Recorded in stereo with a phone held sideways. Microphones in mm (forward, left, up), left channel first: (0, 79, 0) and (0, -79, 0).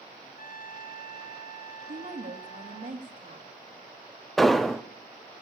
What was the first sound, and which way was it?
A trumpet, 65° left (ahead or behind).